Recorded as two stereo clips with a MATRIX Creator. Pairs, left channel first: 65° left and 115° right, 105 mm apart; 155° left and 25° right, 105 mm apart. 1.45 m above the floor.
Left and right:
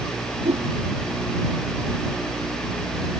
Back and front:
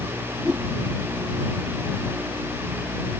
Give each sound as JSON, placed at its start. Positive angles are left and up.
{"t": 0.5, "sound": "a whoosh", "azimuth_deg": -105}